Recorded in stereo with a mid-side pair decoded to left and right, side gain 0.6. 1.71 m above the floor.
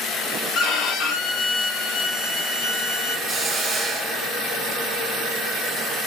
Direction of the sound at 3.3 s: 30° right.